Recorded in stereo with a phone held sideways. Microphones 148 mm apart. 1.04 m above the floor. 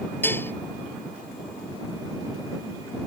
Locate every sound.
0.2 s dishes clattering: 15° left (ahead or behind)